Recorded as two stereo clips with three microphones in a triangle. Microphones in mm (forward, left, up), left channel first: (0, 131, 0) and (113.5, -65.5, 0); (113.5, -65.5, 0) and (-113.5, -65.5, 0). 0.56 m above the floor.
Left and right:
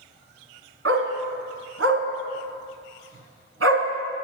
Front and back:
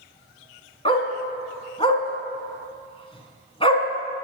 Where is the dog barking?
65° right, 1.8 m.